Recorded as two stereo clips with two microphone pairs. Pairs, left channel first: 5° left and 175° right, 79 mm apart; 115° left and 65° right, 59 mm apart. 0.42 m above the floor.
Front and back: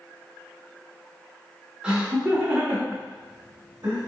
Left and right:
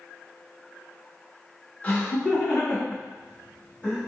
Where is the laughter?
135° left, 1.0 m; by 4.0 s straight behind, 1.7 m.